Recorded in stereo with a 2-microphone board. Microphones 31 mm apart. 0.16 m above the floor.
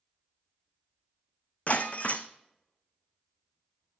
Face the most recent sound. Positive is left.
turn(degrees=45)  # may be behind; listen again after turning